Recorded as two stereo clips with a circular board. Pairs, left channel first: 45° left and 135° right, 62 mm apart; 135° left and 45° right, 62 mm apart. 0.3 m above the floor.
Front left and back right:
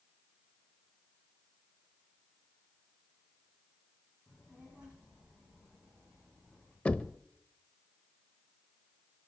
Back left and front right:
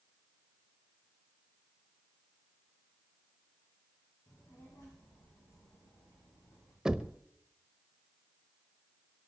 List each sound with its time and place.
4.3 s a child speaking: 150° left, 9.5 m; by 6.8 s 140° left, 10 m
6.8 s knocking: 15° left, 0.6 m